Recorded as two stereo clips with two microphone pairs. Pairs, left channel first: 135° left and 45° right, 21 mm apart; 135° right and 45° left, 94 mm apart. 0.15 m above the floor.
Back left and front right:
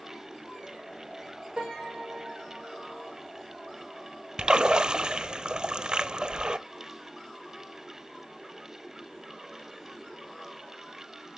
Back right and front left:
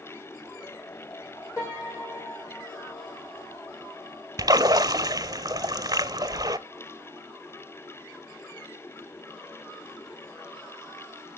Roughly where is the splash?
Ahead.